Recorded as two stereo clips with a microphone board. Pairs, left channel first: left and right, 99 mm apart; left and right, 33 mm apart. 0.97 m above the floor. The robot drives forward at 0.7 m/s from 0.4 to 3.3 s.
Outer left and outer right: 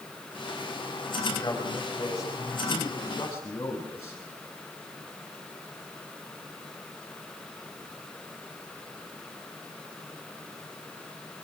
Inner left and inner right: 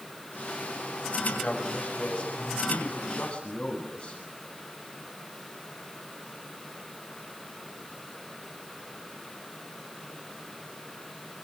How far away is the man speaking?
About 5.5 m.